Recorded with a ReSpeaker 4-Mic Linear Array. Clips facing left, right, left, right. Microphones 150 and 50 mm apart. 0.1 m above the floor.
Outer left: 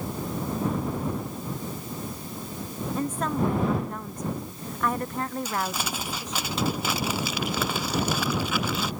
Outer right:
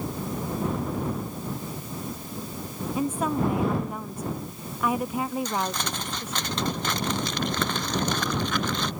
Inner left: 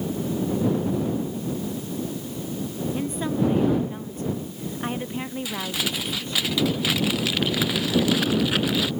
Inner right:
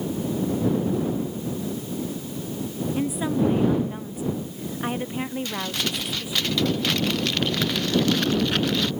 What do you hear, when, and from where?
3.0 s a woman speaking: 10° right (ahead or behind)
5.5 s crumpling: 5° left (ahead or behind)